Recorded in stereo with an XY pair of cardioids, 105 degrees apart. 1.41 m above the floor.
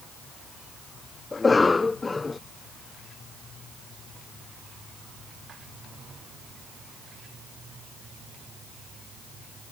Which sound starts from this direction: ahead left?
A cough, at 1.3 s.